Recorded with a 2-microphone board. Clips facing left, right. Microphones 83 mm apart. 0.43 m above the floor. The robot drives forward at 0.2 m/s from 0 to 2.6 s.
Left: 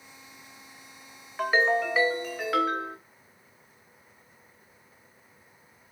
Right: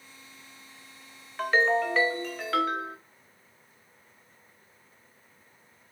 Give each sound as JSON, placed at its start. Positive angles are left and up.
{"t": 1.4, "sound": "a ringtone", "side_deg": 10, "distance_m": 0.5}